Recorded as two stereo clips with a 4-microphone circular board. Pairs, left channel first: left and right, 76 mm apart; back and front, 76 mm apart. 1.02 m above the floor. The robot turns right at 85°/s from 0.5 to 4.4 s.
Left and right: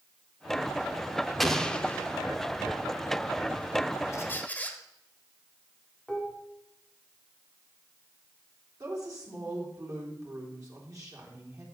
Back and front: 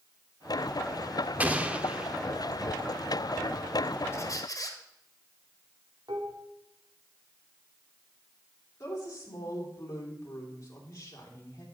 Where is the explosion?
5° left, 0.6 m; by 2.2 s 70° left, 0.6 m.